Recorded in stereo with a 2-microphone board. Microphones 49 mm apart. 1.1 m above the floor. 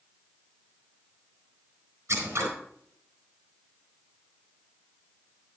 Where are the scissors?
85° right, 4 m.